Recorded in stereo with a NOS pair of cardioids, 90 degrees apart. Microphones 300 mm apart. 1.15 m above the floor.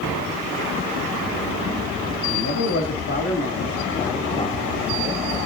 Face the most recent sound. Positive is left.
turn(degrees=5)